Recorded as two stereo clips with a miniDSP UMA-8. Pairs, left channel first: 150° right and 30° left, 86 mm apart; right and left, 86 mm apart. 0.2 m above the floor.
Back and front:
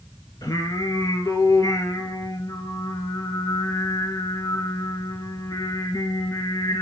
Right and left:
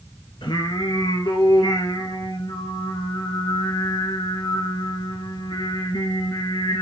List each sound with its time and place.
0.4 s singing: 110° right, 1.3 m